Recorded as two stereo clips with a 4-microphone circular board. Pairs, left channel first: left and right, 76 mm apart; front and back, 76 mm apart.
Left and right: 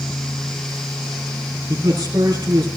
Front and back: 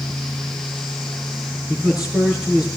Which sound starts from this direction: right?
A man speaking, at 1.7 s.